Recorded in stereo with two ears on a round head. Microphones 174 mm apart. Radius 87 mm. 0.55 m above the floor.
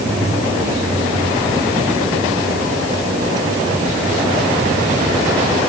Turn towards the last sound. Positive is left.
No sound to turn to.